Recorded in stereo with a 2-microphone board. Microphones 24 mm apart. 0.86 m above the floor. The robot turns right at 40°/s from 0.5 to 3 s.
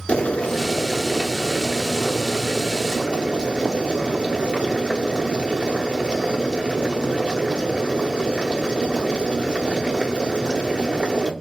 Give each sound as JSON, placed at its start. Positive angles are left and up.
{"t": 0.1, "sound": "boiling", "azimuth_deg": 125, "distance_m": 1.0}